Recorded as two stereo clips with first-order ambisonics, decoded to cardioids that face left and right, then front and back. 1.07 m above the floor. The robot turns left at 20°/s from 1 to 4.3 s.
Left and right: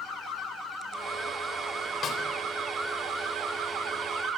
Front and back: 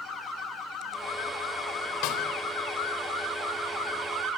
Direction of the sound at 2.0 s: 30° left.